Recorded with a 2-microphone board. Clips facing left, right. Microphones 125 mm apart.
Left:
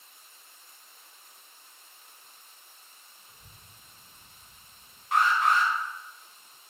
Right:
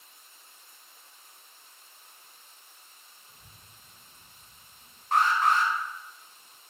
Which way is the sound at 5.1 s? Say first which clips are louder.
Even; 40° right (ahead or behind).